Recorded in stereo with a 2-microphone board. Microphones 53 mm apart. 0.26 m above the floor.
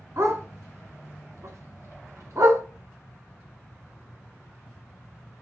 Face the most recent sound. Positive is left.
turn(degrees=-70)  # may be behind; listen again after turning